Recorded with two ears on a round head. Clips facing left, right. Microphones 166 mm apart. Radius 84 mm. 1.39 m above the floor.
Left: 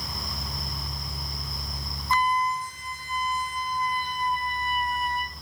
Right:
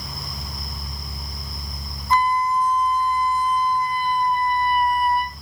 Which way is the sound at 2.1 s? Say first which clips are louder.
Right 5 dB; 15° left (ahead or behind).